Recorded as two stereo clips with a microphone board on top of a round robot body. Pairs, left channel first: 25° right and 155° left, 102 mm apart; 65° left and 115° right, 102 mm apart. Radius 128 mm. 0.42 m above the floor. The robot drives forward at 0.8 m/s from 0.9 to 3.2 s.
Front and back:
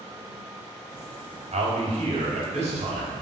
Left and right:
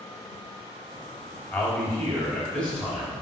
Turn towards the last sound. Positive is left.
turn(degrees=150)